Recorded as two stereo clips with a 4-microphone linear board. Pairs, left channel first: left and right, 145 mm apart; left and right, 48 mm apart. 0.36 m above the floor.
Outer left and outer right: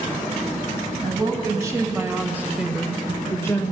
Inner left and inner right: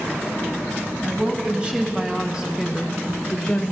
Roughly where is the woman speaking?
Right.